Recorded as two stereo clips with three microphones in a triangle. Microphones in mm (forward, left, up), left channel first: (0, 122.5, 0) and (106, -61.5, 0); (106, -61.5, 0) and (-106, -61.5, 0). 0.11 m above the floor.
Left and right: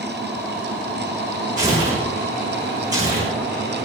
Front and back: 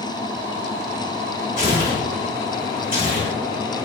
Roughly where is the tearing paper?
Behind right.